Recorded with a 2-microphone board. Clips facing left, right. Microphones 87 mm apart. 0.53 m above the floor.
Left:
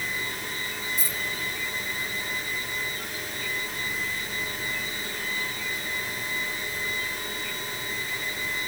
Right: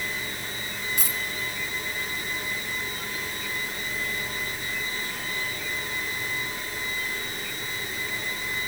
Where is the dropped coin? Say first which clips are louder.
Right 1 dB; 85° right, 3 m.